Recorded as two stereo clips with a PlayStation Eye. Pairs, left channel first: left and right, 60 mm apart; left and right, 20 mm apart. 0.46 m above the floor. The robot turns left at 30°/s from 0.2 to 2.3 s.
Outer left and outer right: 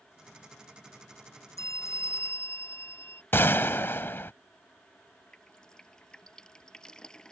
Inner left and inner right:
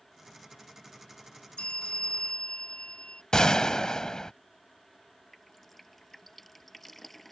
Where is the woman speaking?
No woman speaking in this recording.